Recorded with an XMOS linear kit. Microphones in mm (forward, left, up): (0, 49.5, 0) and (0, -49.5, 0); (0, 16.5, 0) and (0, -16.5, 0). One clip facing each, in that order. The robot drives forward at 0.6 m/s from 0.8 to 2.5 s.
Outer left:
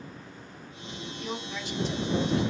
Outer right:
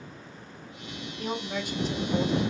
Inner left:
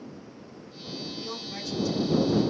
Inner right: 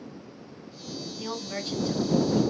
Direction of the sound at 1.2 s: 50° right (ahead or behind).